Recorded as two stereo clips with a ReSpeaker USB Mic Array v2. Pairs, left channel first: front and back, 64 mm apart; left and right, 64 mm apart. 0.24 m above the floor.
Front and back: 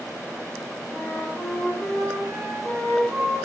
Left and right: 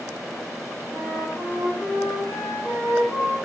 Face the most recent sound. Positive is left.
turn(degrees=135)